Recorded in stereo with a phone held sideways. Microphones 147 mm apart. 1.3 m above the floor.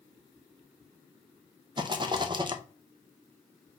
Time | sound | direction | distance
1.8 | a rattle | 30° right (ahead or behind) | 0.7 m